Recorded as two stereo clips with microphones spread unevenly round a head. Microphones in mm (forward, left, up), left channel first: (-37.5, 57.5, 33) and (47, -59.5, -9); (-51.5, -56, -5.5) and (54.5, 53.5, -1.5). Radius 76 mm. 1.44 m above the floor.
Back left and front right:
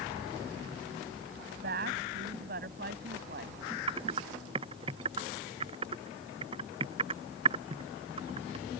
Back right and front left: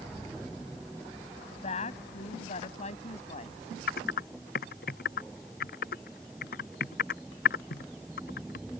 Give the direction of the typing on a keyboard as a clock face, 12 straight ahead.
4 o'clock.